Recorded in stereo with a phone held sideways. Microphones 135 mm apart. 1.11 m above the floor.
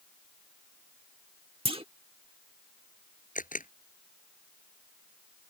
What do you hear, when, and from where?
1.6 s a clunk: 45° right (ahead or behind)
3.4 s a camera shutter: 85° left